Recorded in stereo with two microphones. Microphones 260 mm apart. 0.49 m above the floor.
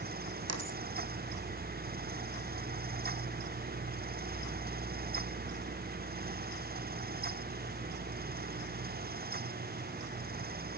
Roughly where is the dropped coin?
Right.